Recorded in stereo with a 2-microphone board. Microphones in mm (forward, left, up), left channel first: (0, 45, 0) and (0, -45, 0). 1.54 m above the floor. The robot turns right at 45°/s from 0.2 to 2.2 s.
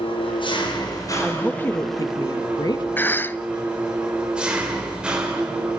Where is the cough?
20° left (ahead or behind), 0.6 m.